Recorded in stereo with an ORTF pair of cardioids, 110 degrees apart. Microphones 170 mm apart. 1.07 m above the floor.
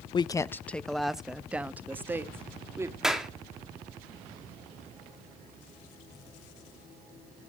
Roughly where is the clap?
Ahead.